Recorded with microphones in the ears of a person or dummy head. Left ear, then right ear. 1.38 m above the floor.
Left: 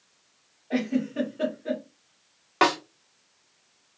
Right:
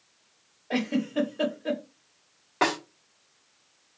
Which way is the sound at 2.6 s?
30° left (ahead or behind).